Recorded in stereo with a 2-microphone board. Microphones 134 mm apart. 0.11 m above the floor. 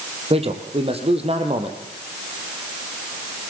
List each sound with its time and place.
0.3 s a man speaking: 45° right (ahead or behind), 3.5 m